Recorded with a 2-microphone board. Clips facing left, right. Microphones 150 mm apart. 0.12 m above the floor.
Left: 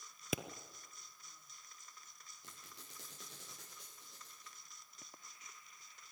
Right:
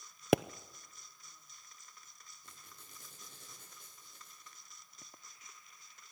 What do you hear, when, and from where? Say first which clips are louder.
0.3 s a pop: right 13 dB; 70° right (ahead or behind), 0.5 m
2.4 s a squeak: left 2 dB; 85° left, 6 m